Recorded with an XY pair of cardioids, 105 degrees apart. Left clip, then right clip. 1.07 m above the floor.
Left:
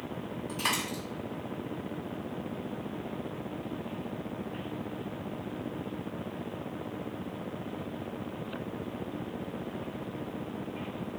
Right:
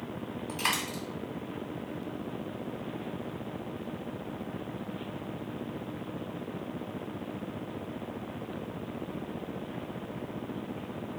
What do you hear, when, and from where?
0.5 s a dropped coin: 30° right, 2.0 m